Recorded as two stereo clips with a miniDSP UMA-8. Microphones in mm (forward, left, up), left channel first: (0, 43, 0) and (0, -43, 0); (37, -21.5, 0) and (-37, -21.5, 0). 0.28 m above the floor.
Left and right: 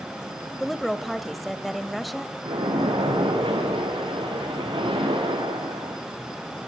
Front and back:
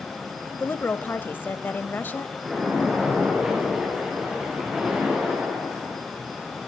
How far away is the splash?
About 7.5 m.